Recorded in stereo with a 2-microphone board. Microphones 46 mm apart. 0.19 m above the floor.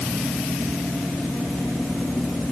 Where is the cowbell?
No cowbell in this recording.